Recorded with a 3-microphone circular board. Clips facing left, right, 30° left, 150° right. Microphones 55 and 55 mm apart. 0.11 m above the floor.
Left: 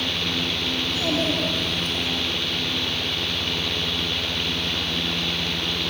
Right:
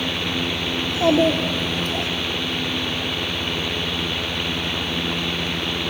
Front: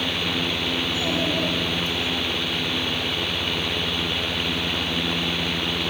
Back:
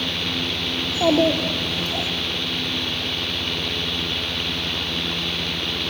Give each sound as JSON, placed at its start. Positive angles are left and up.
{"t": 0.8, "sound": "a child speaking", "azimuth_deg": -145, "distance_m": 4.0}